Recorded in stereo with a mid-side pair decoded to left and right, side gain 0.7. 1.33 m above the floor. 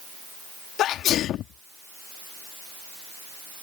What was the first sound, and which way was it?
A sneeze, 50° left.